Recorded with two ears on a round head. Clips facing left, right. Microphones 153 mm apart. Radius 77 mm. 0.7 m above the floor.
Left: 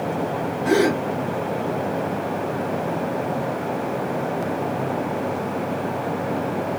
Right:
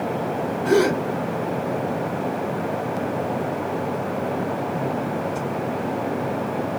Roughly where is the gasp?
Centre.